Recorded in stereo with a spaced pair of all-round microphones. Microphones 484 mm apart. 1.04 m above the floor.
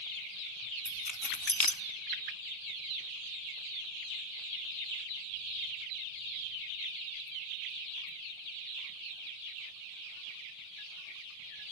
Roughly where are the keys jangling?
Left.